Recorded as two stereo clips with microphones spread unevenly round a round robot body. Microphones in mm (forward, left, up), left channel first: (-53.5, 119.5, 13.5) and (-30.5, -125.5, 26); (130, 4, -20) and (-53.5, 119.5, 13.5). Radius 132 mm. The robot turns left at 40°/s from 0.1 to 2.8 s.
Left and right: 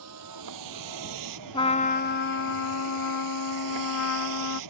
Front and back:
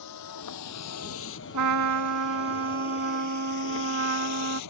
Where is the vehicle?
50° right; by 4.7 s 60° right.